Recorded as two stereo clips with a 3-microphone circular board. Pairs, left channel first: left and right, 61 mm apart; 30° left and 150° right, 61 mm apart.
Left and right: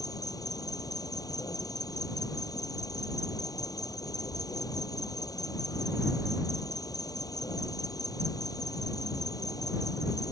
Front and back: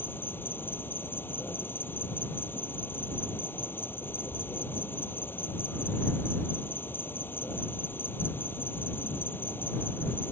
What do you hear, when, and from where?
0.0 s an insect: 85° left